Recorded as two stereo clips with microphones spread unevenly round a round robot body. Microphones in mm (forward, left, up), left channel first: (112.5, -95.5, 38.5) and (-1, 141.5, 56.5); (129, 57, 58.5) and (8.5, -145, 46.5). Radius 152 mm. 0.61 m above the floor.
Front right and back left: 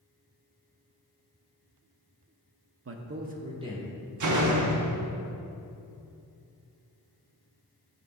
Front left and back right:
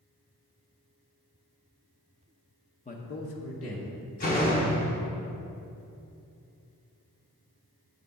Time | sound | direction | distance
2.9 | a man speaking | 115° left | 0.8 m
4.2 | a door slam | 115° left | 0.9 m